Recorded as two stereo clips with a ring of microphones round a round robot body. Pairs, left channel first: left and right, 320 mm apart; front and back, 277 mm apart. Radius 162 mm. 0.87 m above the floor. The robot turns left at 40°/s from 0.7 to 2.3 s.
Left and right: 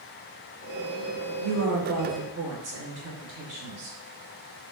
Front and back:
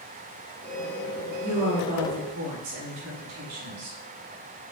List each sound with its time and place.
1.4 s a woman speaking: 100° right, 3.5 m; by 4.0 s 140° right, 3.5 m